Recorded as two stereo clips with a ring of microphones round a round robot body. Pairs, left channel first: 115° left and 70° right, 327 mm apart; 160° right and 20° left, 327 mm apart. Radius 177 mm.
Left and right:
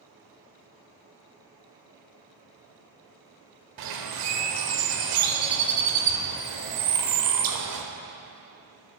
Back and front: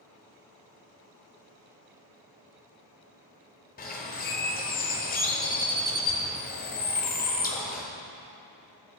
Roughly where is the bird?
Right.